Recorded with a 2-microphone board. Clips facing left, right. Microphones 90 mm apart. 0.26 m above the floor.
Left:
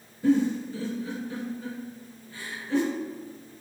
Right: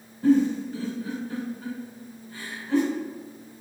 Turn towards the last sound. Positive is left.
turn(degrees=-45)  # may be behind; listen again after turning